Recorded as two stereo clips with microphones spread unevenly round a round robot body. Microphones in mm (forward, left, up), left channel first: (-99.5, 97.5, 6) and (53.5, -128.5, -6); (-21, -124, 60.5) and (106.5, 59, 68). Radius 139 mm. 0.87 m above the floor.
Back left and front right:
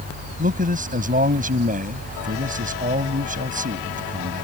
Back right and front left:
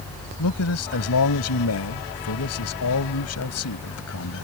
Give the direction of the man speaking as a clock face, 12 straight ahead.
4 o'clock.